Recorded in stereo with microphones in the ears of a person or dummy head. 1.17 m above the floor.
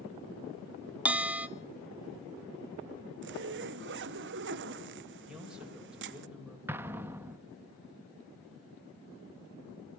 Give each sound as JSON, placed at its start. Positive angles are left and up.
{"t": 1.1, "sound": "a bell", "side_deg": -10, "distance_m": 1.1}
{"t": 3.2, "sound": "a zipper", "side_deg": -55, "distance_m": 0.8}
{"t": 5.3, "sound": "a man speaking", "side_deg": -5, "distance_m": 5.0}
{"t": 6.7, "sound": "an explosion", "side_deg": -15, "distance_m": 1.0}